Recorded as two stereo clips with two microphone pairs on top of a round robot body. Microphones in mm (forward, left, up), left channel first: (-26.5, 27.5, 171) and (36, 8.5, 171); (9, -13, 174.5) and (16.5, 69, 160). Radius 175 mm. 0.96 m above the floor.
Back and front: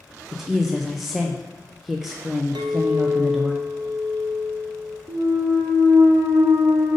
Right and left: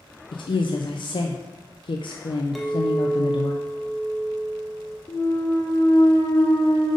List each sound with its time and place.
0.3 s a woman speaking: 105° right, 0.6 m
2.5 s a clink: 5° right, 0.5 m
5.1 s a clunk: 40° right, 1.0 m